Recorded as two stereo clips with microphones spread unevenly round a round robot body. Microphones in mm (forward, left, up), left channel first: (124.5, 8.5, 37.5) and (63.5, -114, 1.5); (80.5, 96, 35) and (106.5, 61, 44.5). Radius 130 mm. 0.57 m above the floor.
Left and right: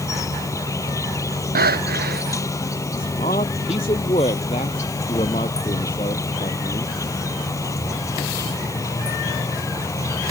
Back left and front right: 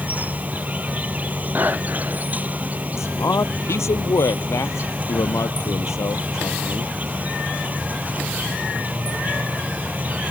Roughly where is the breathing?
Behind right.